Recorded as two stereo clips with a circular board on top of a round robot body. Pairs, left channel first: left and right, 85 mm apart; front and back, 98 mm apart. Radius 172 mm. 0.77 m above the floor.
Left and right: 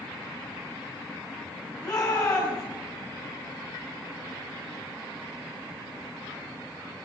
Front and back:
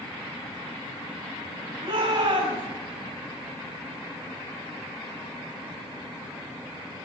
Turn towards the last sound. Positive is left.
turn(degrees=165)